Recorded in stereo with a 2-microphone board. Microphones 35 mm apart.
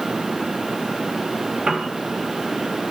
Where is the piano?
20° right (ahead or behind), 1.2 m.